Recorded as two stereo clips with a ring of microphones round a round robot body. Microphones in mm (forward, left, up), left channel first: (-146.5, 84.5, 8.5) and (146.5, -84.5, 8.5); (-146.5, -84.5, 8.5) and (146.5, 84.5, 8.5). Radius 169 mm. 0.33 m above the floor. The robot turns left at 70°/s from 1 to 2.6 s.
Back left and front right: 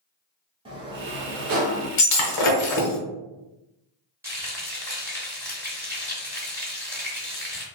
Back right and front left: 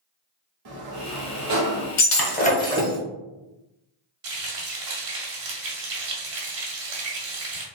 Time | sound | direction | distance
0.7 | a sliding door | 45° left | 1.1 m
2.0 | breaking glass | straight behind | 0.9 m
4.2 | frying | 50° left | 1.7 m